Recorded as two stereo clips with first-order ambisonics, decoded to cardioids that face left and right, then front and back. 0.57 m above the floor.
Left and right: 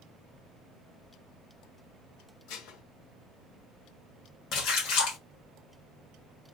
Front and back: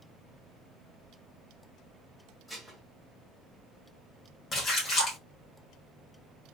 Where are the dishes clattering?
85° left, 0.9 m.